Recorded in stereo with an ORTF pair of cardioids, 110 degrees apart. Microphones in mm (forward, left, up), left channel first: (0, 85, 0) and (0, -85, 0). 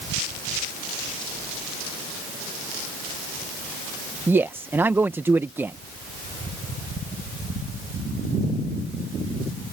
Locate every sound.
4.3 s a man speaking: 10° right